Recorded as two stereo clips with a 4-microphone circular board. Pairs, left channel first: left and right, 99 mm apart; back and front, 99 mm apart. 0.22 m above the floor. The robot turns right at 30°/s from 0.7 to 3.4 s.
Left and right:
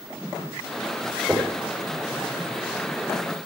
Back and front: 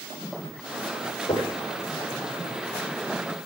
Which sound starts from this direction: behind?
Knocking, at 1.3 s.